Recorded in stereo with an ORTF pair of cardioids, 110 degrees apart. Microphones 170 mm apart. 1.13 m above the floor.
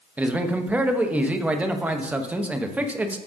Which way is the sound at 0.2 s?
10° right.